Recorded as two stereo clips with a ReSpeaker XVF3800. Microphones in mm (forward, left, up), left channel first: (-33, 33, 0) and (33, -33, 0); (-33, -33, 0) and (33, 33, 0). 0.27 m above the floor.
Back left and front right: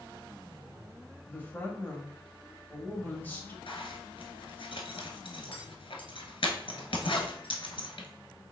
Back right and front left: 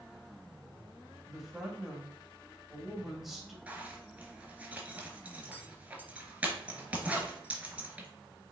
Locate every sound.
1.3 s a woman speaking: 125° left, 1.0 m
3.7 s a zipper: 120° left, 0.9 m